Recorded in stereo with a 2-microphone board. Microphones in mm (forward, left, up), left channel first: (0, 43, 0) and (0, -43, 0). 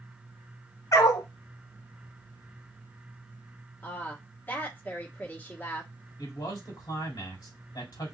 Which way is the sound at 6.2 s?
50° left (ahead or behind).